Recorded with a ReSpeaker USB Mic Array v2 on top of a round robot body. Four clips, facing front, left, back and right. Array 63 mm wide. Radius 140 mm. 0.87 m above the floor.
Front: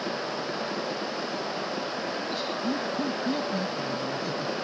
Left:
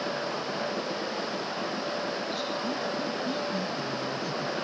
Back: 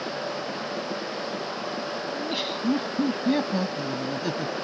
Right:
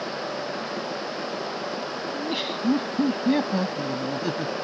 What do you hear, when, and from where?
2.1 s laughter: 110° right; by 4.5 s 120° right